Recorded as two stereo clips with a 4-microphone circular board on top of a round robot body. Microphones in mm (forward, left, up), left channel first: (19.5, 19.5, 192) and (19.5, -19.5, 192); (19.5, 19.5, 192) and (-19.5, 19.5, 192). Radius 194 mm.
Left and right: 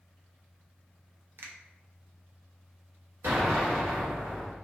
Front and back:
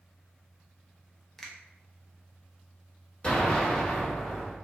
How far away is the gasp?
No gasp in this recording.